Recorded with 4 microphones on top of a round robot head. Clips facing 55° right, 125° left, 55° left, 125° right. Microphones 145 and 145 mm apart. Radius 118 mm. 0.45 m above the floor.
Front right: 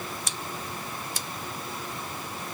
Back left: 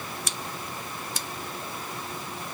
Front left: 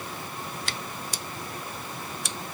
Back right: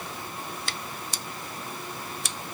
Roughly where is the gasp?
No gasp in this recording.